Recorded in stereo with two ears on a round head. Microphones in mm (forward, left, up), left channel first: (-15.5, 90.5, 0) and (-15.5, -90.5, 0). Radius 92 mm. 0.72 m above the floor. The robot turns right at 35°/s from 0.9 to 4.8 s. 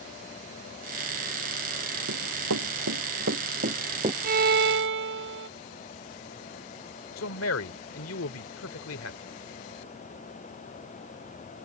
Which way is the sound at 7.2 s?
80° left.